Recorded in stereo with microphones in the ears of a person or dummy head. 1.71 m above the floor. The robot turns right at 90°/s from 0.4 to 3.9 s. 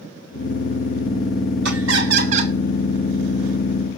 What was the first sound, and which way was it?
Laughter, 105° right.